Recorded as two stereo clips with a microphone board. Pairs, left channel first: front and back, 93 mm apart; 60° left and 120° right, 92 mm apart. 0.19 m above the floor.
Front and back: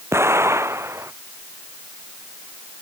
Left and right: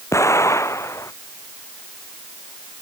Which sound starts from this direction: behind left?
An explosion, at 0.1 s.